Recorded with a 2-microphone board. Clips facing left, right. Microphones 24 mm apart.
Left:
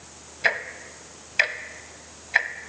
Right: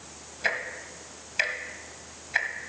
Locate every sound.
0.4 s ticking: 20° left (ahead or behind), 0.6 m